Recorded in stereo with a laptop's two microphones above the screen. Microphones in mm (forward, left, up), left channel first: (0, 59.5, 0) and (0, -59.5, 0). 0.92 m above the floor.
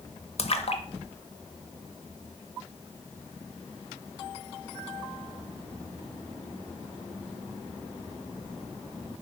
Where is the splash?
55° left (ahead or behind), 0.9 m.